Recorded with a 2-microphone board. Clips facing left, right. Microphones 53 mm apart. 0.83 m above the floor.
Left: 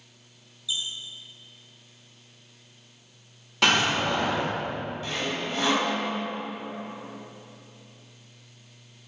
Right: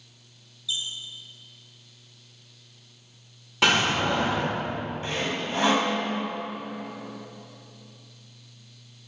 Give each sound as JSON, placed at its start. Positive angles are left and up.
{"t": 0.7, "sound": "a squeak", "side_deg": 10, "distance_m": 1.9}
{"t": 3.6, "sound": "a door slam", "side_deg": -5, "distance_m": 2.5}
{"t": 5.0, "sound": "sawing", "side_deg": -30, "distance_m": 1.3}